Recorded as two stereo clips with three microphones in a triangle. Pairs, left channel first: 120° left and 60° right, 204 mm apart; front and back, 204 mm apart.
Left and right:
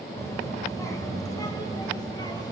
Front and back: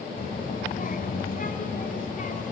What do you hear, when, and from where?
0.2 s a child speaking: 45° left, 3 m; by 2.5 s 50° left, 4 m